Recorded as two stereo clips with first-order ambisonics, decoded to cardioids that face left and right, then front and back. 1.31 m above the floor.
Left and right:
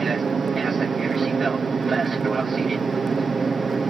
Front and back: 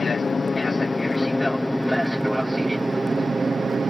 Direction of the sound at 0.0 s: 40° right.